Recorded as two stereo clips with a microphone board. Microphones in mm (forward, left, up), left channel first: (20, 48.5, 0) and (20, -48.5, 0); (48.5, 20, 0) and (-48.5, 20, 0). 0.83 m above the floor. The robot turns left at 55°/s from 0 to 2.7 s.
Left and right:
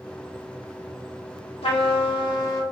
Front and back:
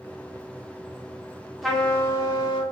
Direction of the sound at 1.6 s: 90° left.